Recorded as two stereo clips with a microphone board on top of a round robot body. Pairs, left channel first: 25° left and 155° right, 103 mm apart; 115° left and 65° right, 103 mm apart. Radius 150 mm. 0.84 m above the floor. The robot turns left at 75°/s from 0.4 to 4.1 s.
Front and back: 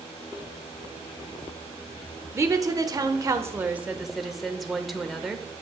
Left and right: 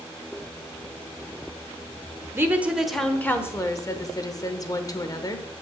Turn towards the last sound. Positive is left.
turn(degrees=115)